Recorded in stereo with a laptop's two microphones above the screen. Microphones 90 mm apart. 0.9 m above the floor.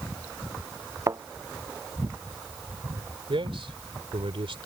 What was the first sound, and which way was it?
A thud, 35° right (ahead or behind).